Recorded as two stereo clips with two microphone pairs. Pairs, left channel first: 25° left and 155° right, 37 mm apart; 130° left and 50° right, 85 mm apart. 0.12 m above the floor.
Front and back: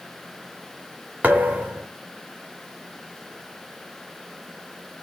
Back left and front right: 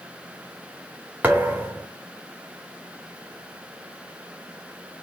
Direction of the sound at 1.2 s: 120° right.